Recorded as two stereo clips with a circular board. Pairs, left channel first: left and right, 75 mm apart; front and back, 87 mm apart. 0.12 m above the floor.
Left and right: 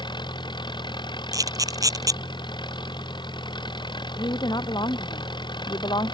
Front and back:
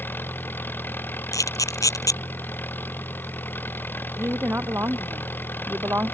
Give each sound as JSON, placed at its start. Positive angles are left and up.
{"t": 0.0, "sound": "an engine running", "azimuth_deg": 70}
{"t": 1.3, "sound": "a camera shutter", "azimuth_deg": -50}
{"t": 4.2, "sound": "a woman speaking", "azimuth_deg": 115}